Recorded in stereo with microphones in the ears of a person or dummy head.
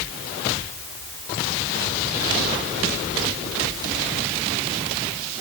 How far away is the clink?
I don't hear a clink.